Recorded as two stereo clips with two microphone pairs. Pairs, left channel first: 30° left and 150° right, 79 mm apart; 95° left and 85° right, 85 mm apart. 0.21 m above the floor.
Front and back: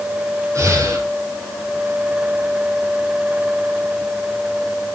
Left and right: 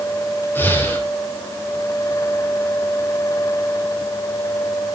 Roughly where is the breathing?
Behind.